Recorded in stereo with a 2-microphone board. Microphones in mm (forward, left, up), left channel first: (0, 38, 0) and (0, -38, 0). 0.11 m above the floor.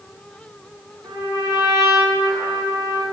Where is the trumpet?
40° right (ahead or behind), 8 m.